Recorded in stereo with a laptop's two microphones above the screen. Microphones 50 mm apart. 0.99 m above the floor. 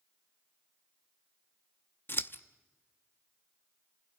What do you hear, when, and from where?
2.1 s scissors: 50° left (ahead or behind), 0.6 m